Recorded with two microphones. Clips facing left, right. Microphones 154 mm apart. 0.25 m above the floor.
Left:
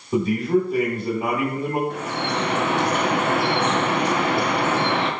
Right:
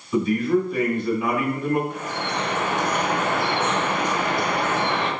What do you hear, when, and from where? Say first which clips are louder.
0.1 s a man speaking: even; 40° left (ahead or behind), 1.8 m
1.9 s dripping: left 2 dB; 70° left (ahead or behind), 0.7 m